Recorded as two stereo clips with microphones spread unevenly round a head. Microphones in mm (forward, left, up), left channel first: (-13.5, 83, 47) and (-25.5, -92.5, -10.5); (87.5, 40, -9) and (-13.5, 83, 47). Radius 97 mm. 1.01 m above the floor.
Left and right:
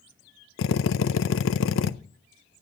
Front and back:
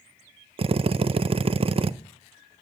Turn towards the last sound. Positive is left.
turn(degrees=105)